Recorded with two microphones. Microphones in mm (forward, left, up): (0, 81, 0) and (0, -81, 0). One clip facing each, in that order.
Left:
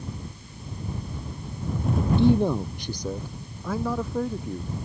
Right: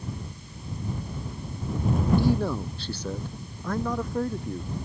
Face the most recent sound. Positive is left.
turn(degrees=0)  # may be behind; listen again after turning